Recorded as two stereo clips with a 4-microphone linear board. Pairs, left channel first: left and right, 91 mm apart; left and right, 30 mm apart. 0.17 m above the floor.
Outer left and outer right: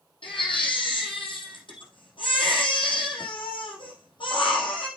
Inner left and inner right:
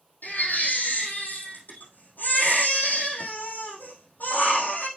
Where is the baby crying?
75° left (ahead or behind), 3.5 m.